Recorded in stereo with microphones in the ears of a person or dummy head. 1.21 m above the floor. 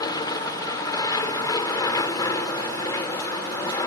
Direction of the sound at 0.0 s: 15° left (ahead or behind).